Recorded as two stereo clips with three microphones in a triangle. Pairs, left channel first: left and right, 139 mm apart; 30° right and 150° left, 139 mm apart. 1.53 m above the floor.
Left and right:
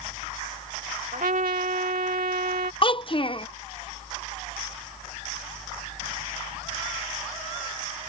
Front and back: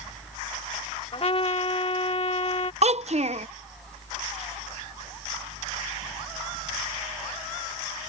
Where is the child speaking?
130° left.